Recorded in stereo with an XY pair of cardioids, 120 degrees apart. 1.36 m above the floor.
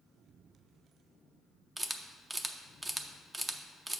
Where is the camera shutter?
15° right, 0.5 m.